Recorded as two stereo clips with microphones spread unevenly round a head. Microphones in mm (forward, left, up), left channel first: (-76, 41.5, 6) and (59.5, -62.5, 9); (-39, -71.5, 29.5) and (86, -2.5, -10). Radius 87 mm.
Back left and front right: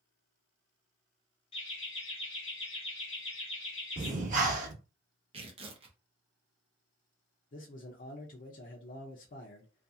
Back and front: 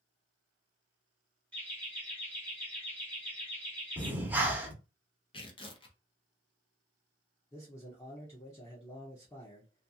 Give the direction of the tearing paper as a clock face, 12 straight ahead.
3 o'clock.